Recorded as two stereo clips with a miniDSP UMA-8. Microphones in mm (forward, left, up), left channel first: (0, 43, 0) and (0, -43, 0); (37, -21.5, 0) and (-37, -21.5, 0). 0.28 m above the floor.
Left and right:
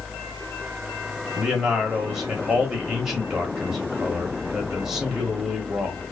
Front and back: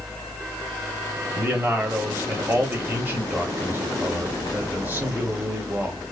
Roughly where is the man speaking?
Behind.